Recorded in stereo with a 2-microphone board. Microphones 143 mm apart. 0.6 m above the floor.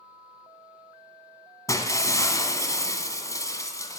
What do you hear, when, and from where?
1.7 s breaking glass: 25° left (ahead or behind), 1.4 m